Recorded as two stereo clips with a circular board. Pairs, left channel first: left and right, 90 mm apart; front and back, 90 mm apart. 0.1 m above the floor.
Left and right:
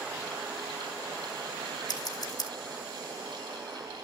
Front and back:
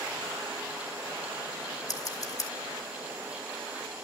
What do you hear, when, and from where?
1.9 s scissors: 45° left, 3 m